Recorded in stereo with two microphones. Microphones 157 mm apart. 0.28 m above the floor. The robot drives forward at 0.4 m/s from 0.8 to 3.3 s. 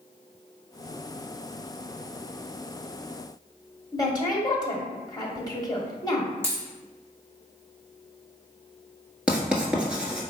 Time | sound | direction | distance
3.9 | a woman speaking | 25° left (ahead or behind) | 1.0 m
6.4 | a dropped coin | 15° right (ahead or behind) | 1.5 m
9.3 | writing | 5° right (ahead or behind) | 1.0 m